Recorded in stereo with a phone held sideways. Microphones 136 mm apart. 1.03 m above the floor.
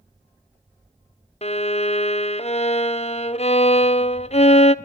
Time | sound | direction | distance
1.4 | a violin | 50° left (ahead or behind) | 0.6 m